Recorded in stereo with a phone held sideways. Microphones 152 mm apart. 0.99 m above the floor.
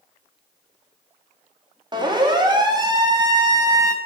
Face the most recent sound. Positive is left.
turn(degrees=-20)  # may be behind; listen again after turning